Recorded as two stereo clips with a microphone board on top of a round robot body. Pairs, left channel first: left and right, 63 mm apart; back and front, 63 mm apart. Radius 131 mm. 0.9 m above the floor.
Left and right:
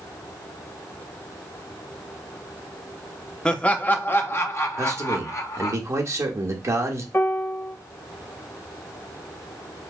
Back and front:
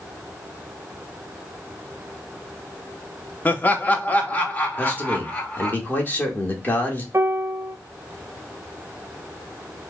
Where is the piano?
40° left, 0.8 m.